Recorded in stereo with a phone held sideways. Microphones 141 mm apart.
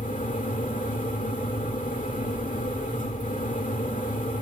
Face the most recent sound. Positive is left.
turn(degrees=70)  # may be behind; listen again after turning